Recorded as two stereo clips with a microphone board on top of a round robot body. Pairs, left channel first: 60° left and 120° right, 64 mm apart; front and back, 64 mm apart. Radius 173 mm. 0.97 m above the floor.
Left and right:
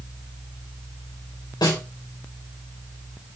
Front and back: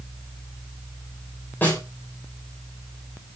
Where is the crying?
I don't hear crying.